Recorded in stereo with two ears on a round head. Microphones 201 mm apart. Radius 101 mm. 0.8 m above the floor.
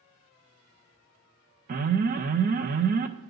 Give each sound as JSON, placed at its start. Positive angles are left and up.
{"t": 1.7, "sound": "an alarm", "side_deg": -40, "distance_m": 0.7}